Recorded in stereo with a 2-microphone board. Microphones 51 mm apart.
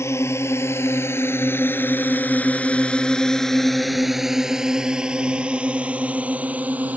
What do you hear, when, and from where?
0.0 s a drone: 60° left (ahead or behind); by 7.0 s 30° right (ahead or behind)